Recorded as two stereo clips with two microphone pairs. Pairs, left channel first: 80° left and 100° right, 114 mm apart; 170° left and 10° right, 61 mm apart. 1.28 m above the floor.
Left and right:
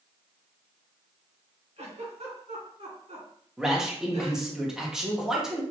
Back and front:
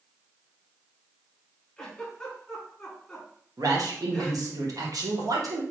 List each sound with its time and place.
1.8 s a giggle: 110° right, 2.0 m
3.6 s a man speaking: 20° right, 1.3 m